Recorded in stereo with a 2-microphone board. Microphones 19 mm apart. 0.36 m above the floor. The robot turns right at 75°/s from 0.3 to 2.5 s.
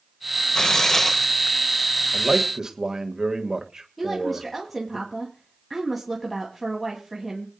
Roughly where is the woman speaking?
Centre.